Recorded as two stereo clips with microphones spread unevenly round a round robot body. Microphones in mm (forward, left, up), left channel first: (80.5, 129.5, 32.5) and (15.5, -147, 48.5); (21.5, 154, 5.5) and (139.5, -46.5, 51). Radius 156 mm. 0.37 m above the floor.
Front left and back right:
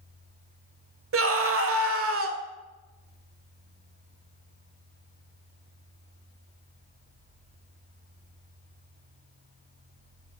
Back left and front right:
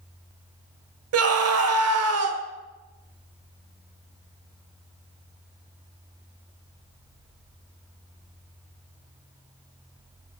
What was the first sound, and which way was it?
A scream, 70° right.